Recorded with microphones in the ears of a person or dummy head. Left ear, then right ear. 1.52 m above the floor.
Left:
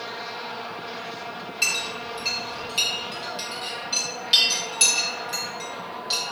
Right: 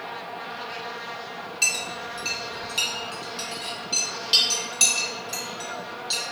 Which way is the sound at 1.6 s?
Centre (ahead or behind).